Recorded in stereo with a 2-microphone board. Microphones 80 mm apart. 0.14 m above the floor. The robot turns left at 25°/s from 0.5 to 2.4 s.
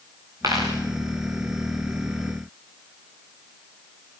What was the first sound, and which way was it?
A dropped coin, 45° right (ahead or behind).